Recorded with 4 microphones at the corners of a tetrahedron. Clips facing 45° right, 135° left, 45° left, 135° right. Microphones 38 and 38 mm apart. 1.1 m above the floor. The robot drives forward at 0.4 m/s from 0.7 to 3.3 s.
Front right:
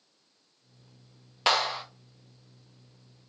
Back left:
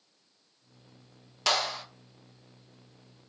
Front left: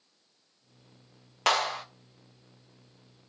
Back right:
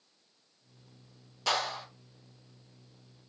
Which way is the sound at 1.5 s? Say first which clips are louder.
Front right 3 dB, front left 5 dB; 15° left.